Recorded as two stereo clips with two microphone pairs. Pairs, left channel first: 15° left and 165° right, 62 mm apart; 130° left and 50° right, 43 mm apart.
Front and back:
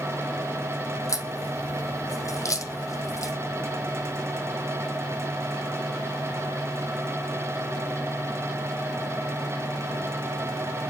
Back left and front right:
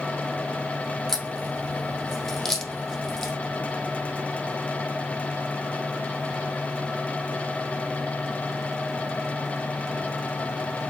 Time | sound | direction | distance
1.1 | a crack | 50° left | 4 m